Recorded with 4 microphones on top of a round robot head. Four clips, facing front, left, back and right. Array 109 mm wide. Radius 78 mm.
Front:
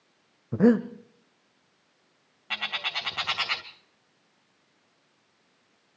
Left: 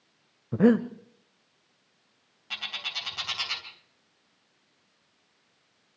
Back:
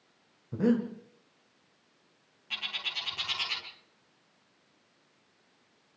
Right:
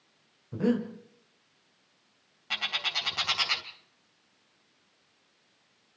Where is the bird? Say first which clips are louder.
Right 5 dB, front 8 dB; 25° right, 3 m.